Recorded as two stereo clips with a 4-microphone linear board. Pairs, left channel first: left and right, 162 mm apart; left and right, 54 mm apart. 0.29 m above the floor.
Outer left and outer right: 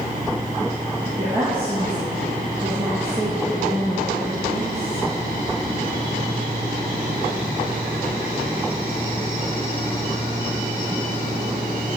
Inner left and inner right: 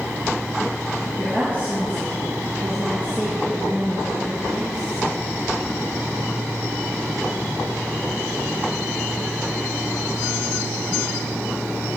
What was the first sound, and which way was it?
A woman speaking, 35° right (ahead or behind).